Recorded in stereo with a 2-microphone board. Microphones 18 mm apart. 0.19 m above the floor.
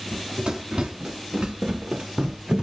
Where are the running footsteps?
70° right (ahead or behind), 1.9 m; by 2.6 s 65° right (ahead or behind), 0.8 m.